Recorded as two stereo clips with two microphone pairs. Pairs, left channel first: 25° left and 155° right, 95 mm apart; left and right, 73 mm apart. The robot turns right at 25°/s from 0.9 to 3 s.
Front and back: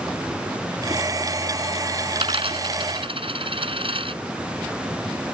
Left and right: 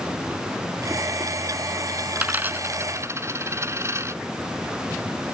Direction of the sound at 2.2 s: 165° right.